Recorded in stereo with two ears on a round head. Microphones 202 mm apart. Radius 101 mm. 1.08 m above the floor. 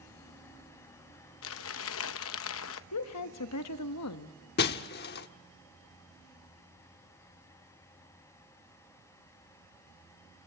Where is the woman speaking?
80° left, 1.2 m.